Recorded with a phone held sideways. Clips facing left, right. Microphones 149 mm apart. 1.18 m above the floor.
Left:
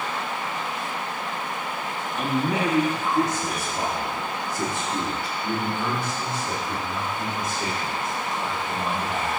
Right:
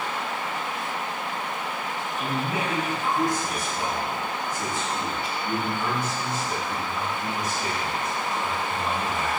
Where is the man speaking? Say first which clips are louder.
Left 5 dB; 80° left, 2.5 m; by 9.4 s 55° left (ahead or behind), 5.5 m.